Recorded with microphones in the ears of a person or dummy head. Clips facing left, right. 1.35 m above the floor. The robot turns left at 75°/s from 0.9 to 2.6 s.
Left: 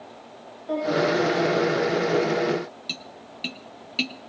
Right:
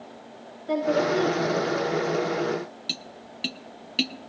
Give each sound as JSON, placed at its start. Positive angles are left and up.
{"t": 0.7, "sound": "a woman speaking", "azimuth_deg": -30, "distance_m": 7.5}
{"t": 2.9, "sound": "tapping", "side_deg": -10, "distance_m": 1.0}